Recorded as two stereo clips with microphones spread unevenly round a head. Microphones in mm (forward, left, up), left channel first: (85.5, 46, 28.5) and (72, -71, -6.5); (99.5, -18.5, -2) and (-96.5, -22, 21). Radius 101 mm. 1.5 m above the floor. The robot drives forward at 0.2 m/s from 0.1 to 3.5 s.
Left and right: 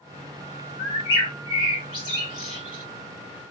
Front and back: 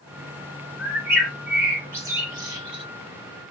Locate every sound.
0.8 s a bird: 100° left, 1.3 m; by 2.8 s 120° left, 1.4 m